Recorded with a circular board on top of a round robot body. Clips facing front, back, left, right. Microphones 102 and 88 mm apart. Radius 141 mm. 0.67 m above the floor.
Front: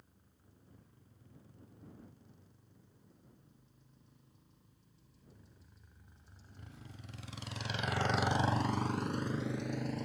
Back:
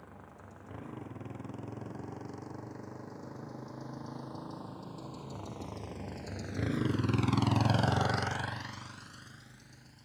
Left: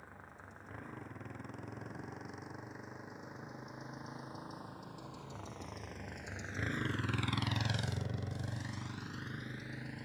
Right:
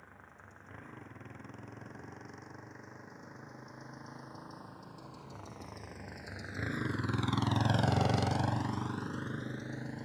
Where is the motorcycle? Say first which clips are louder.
Back 18 dB, left 2 dB; 175° left; by 10.1 s 25° right.